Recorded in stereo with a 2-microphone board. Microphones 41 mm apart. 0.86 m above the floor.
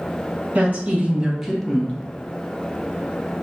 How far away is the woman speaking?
About 0.9 m.